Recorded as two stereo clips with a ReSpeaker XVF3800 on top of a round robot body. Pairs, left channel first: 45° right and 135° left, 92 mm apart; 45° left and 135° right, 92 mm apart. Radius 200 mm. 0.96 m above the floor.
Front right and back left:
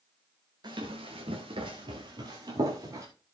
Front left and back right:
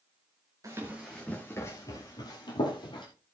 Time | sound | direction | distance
0.6 | running footsteps | 175° left | 1.0 m